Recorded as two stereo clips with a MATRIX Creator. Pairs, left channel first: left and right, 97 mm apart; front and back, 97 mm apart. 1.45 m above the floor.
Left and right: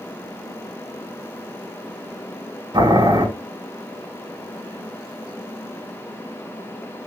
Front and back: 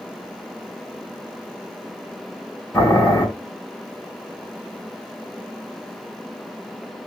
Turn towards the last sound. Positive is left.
turn(degrees=-60)